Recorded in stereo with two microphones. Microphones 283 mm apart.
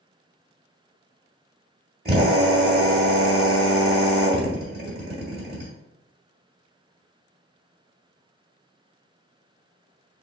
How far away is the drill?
About 1.6 m.